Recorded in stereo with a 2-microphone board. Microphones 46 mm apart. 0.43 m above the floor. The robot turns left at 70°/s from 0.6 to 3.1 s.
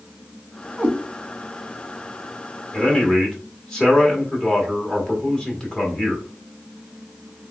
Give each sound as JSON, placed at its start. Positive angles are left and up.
{"t": 0.8, "sound": "a cat meowing", "side_deg": -20, "distance_m": 1.2}
{"t": 2.7, "sound": "a man speaking", "side_deg": 25, "distance_m": 1.2}